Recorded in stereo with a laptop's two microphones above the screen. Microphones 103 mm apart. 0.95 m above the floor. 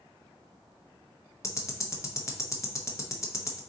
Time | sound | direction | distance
1.4 | ticking | 30° left (ahead or behind) | 0.7 m